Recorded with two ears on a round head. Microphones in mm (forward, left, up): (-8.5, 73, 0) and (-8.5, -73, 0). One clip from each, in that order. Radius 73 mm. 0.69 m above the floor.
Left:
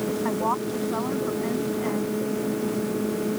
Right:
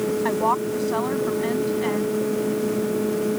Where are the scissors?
I don't hear scissors.